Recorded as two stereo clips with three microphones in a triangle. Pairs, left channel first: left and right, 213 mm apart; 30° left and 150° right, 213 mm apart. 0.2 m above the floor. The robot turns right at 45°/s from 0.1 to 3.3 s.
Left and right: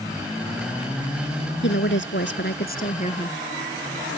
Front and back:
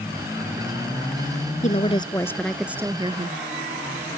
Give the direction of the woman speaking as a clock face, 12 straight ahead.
9 o'clock.